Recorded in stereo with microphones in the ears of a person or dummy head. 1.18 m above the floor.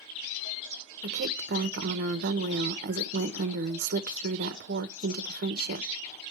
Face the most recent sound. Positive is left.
turn(degrees=-55)  # may be behind; listen again after turning